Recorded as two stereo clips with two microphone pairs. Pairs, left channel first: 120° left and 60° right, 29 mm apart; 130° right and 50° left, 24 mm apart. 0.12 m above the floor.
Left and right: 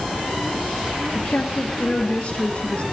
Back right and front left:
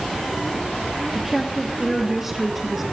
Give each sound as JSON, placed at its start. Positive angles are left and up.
{"t": 1.1, "sound": "a woman speaking", "azimuth_deg": 125, "distance_m": 2.5}